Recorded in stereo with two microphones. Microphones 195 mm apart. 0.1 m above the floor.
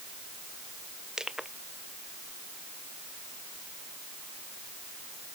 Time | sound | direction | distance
1.2 | crushing | 5° right (ahead or behind) | ?